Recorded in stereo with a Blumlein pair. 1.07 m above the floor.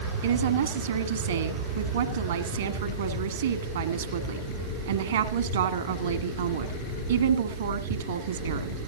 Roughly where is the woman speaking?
Ahead right.